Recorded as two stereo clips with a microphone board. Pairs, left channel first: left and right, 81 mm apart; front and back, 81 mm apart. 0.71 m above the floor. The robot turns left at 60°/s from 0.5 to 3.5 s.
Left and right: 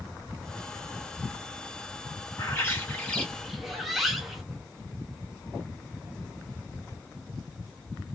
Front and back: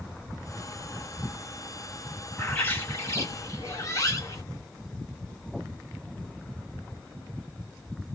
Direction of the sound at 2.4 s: 65° left.